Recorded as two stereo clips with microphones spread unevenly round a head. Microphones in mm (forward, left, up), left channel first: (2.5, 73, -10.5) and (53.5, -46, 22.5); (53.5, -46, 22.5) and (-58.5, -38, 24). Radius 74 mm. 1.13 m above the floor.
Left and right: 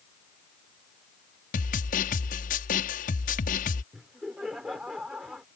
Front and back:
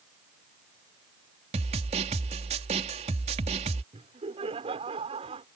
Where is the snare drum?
135° left.